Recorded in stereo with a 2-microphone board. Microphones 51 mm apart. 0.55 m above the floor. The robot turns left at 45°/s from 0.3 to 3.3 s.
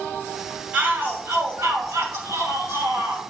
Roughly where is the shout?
Ahead right.